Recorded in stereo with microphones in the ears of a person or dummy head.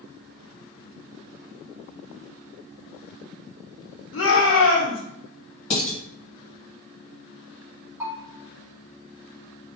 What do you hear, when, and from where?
4.1 s a shout: 70° left (ahead or behind), 0.9 m
5.7 s dishes clattering: 35° left (ahead or behind), 1.4 m
8.0 s a bell: 10° right (ahead or behind), 1.1 m